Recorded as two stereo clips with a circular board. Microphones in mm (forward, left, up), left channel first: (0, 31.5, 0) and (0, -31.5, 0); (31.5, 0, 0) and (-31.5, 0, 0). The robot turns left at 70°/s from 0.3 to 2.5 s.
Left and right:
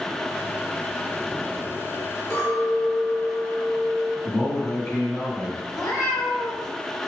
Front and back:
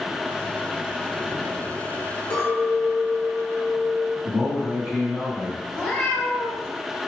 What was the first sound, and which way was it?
A clink, 5° left.